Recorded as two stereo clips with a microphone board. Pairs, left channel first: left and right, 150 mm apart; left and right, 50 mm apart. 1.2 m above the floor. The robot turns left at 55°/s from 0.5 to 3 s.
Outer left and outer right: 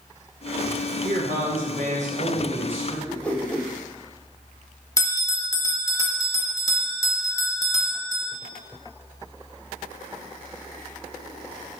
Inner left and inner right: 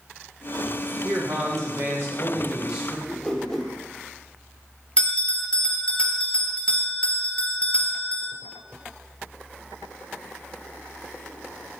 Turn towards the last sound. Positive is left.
turn(degrees=20)  # may be behind; listen again after turning